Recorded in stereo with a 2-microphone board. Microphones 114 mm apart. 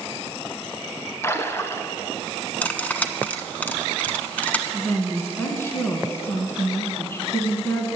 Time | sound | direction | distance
1.2 | a splash | 20° left (ahead or behind) | 0.9 m
2.6 | cutlery clinking | 15° left (ahead or behind) | 0.9 m
4.7 | a woman speaking | 20° left (ahead or behind) | 1.6 m